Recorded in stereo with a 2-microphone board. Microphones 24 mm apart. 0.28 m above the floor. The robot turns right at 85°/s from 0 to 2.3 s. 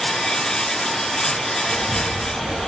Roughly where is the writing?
Behind right.